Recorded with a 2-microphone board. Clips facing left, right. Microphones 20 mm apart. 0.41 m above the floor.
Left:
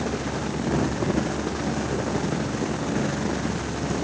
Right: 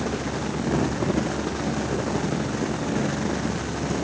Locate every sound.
Only background noise.